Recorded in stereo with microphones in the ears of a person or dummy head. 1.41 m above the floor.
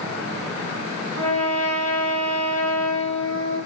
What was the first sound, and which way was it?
A trumpet, 80° right.